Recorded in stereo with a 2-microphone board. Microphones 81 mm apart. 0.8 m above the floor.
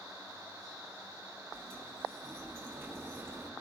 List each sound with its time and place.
1.5 s a sliding door: 30° right (ahead or behind), 3.5 m